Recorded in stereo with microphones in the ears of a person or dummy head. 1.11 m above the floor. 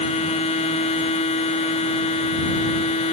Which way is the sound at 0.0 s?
30° left (ahead or behind).